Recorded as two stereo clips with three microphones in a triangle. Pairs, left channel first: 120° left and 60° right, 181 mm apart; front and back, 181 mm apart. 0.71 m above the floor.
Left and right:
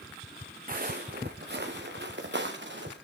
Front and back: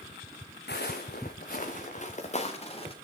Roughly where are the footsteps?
Ahead.